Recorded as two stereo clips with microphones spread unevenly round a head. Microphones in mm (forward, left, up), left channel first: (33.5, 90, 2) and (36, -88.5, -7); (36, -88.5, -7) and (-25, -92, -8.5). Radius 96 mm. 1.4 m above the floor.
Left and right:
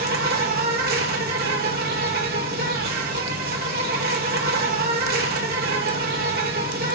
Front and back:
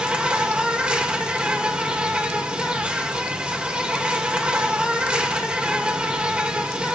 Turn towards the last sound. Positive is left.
turn(degrees=-110)